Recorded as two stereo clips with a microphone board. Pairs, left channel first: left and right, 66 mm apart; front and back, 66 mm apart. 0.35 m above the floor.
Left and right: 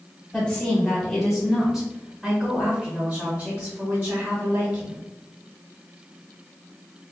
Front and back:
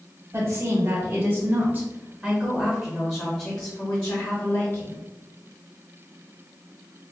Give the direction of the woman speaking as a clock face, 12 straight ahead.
6 o'clock.